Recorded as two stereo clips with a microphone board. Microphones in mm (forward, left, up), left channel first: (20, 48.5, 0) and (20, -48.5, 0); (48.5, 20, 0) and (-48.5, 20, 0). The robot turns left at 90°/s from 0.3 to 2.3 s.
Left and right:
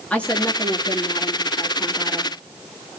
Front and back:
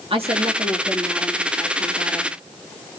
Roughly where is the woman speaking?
Behind.